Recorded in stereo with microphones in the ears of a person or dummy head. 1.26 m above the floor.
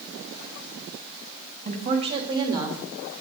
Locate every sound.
1.6 s a woman speaking: 35° right (ahead or behind), 2.5 m; by 2.8 s 15° right (ahead or behind), 2.5 m